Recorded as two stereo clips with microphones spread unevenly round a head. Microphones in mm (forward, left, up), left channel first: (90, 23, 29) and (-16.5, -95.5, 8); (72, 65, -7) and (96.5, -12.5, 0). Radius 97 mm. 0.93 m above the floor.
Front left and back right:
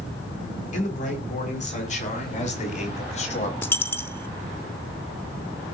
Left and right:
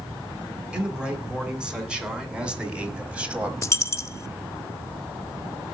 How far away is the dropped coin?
About 0.6 m.